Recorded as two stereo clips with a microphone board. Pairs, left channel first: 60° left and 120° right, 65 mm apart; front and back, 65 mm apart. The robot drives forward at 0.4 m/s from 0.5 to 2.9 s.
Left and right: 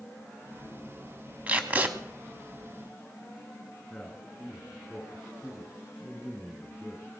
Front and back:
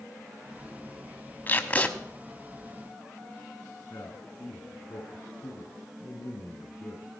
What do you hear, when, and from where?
1.5 s tape being pulled: 55° right, 1.2 m; by 1.9 s 65° right, 1.1 m
3.9 s a man speaking: 25° right, 3 m